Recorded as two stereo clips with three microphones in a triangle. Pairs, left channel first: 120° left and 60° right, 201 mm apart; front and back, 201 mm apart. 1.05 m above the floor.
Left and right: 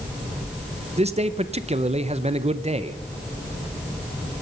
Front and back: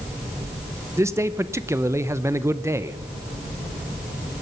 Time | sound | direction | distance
1.0 | a man speaking | 105° right | 0.7 m